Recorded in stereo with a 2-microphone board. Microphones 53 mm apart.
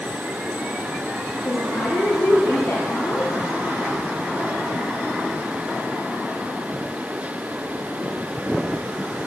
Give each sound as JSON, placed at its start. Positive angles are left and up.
{"t": 1.4, "sound": "a woman speaking", "side_deg": 55, "distance_m": 9.5}